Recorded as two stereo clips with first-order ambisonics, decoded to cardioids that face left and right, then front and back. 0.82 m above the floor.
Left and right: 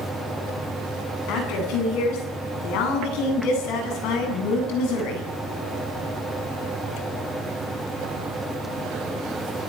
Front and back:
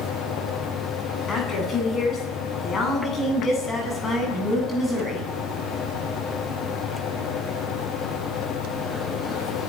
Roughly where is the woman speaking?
Ahead left.